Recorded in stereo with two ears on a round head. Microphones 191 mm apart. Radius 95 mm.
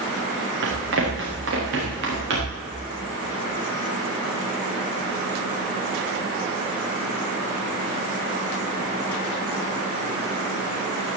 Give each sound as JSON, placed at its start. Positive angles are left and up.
{"t": 0.6, "sound": "running footsteps", "side_deg": -60, "distance_m": 5.0}